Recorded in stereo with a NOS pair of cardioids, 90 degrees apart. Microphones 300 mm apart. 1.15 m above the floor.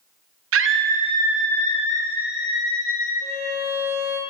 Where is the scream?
50° right, 0.7 m; by 3.1 s 50° left, 1.4 m.